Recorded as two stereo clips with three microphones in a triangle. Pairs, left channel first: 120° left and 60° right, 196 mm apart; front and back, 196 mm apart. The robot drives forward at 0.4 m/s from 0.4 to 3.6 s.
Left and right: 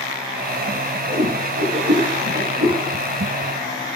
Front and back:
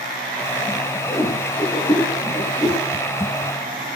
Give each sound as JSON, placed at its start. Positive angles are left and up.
{"t": 1.1, "sound": "a whoosh", "azimuth_deg": -75, "distance_m": 8.0}